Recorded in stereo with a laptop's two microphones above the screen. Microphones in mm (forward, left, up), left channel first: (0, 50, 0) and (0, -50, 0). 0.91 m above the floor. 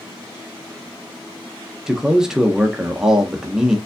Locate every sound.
1.9 s a man speaking: 5° right (ahead or behind), 0.6 m